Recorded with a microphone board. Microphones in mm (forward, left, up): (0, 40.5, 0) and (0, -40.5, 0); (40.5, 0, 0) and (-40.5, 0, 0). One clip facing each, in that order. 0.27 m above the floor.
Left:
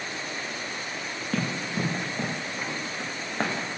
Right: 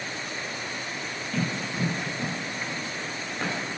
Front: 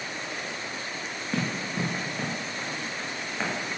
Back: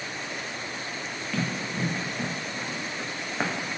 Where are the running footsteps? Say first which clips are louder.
Left 1 dB, front 1 dB; 60° left, 1.6 m; by 3.8 s 120° left, 1.4 m.